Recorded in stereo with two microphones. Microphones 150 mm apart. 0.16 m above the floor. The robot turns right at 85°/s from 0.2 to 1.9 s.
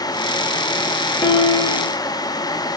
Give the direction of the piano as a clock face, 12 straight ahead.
11 o'clock.